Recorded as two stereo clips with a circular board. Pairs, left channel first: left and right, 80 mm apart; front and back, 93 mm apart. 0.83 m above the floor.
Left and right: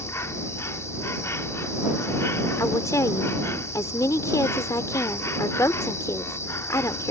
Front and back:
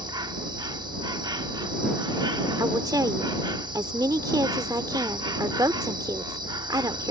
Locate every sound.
0.0 s an insect: 145° left
2.6 s a woman speaking: 135° left